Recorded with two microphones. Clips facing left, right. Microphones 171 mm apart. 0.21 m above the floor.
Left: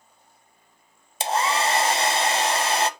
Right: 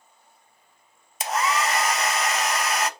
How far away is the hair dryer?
About 0.6 m.